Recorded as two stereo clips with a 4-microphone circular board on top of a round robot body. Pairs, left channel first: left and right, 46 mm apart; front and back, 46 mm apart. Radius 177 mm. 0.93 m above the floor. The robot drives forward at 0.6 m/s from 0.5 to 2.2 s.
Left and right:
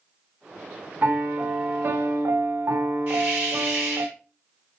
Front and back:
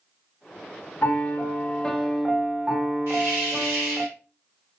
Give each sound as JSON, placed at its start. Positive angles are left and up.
{"t": 1.0, "sound": "a piano", "azimuth_deg": -35, "distance_m": 0.9}
{"t": 3.1, "sound": "a hiss", "azimuth_deg": -145, "distance_m": 0.9}